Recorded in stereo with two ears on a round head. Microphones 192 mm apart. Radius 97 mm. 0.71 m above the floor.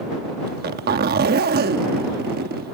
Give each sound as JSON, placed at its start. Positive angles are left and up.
{"t": 0.5, "sound": "a zipper", "side_deg": -45}